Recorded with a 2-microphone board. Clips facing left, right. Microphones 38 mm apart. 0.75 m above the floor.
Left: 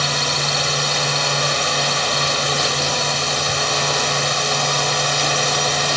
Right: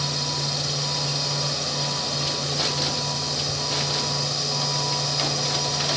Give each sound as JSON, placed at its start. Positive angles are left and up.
{"t": 0.0, "sound": "a drone", "side_deg": 65}